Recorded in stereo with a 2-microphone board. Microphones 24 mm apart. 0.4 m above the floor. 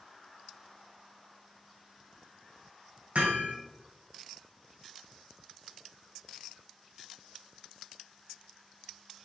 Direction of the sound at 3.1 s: 70° right (ahead or behind).